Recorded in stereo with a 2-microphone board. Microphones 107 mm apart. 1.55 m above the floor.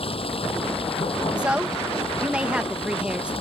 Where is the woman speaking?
10° right (ahead or behind).